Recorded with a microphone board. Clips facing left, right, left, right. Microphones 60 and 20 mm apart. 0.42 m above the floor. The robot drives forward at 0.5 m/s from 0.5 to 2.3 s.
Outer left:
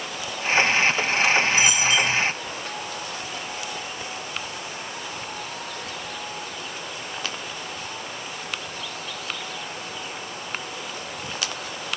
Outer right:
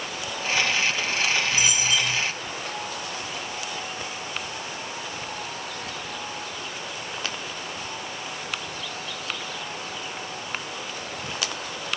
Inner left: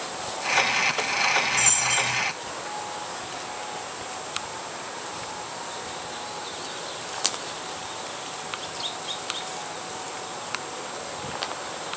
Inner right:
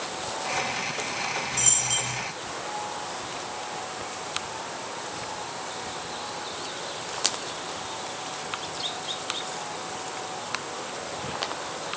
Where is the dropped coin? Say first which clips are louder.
Outer left 4 dB, inner left 4 dB; 25° right (ahead or behind), 3.5 m; by 2.2 s 20° right (ahead or behind), 4 m.